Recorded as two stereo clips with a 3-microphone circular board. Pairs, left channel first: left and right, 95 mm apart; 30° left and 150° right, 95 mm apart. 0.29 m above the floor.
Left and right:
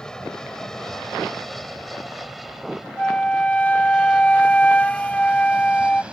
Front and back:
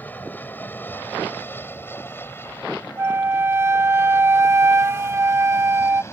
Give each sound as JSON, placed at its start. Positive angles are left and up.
{"t": 0.0, "sound": "an aircraft", "azimuth_deg": 25}
{"t": 3.0, "sound": "a flute", "azimuth_deg": 160}